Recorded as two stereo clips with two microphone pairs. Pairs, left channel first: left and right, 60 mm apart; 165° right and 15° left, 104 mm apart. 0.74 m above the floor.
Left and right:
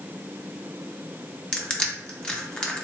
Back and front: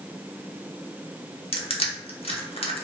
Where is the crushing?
170° left, 0.6 m.